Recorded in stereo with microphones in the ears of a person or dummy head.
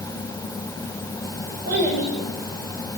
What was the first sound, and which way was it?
A child speaking, 60° right (ahead or behind).